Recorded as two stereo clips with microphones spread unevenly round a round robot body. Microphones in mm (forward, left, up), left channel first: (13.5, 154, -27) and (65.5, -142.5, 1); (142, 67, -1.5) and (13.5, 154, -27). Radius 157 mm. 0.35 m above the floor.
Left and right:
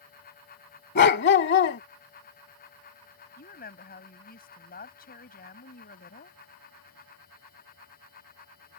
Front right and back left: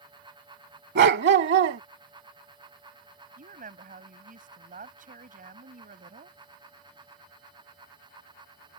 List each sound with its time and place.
0.9 s a dog barking: 160° left
3.4 s a woman speaking: 155° left